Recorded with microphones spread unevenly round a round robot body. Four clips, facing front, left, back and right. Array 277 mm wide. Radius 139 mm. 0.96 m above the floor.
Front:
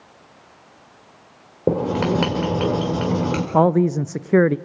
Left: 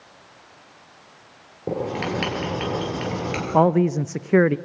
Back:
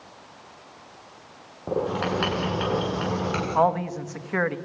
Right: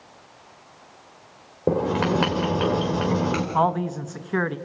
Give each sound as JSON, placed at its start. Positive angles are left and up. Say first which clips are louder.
{"t": 1.7, "sound": "writing", "louder": "right 4 dB, front 6 dB", "azimuth_deg": -20, "distance_m": 4.5}
{"t": 3.5, "sound": "a man speaking", "louder": "left 7 dB, front 6 dB", "azimuth_deg": 30, "distance_m": 0.5}